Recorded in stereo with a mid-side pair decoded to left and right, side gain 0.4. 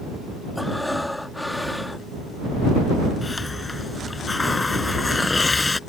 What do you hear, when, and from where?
0.6 s breathing: 5° left
3.2 s a hiss: 25° left